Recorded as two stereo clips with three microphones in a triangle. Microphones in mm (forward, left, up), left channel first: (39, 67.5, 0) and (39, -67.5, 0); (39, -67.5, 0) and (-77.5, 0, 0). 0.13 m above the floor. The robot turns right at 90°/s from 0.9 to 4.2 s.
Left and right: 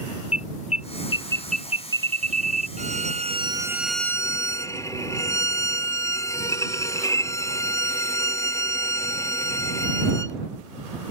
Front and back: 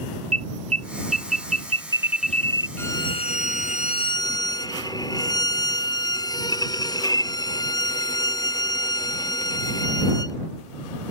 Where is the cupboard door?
No cupboard door in this recording.